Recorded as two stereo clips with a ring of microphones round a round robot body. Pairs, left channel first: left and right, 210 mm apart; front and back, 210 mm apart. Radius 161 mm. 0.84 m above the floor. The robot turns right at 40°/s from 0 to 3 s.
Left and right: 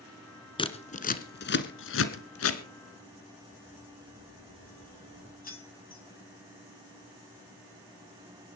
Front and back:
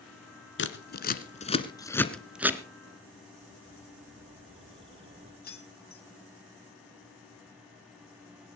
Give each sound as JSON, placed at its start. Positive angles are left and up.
{"t": 0.6, "sound": "scissors", "azimuth_deg": 25, "distance_m": 1.7}
{"t": 3.4, "sound": "a bird", "azimuth_deg": 155, "distance_m": 7.0}
{"t": 5.4, "sound": "keys jangling", "azimuth_deg": 45, "distance_m": 6.0}